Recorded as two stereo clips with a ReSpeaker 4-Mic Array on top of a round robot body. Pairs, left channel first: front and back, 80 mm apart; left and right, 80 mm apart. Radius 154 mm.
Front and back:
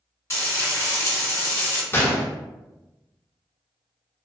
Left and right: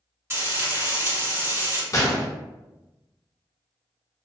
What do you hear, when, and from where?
0.3 s frying: 45° right, 1.9 m
1.9 s a gunshot: 55° left, 0.8 m